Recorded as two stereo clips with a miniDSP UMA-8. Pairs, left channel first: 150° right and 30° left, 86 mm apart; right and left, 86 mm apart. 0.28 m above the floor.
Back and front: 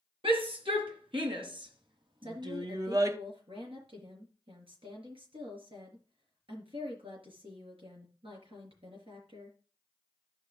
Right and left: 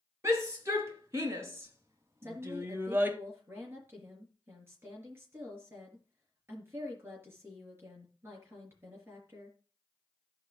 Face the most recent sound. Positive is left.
turn(degrees=30)